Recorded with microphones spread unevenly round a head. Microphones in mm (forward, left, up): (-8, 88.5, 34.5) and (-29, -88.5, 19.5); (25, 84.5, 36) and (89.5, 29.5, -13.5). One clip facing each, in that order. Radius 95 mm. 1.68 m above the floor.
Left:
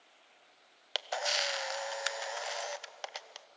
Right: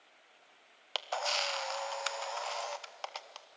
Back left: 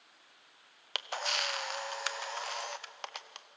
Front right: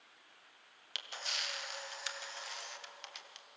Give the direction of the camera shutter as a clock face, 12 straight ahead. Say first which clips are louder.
Even, back left 9 dB; 7 o'clock.